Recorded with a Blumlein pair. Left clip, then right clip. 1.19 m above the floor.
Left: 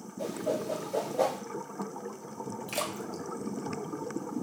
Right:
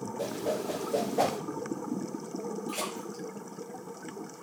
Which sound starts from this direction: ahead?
A whoosh, at 0.2 s.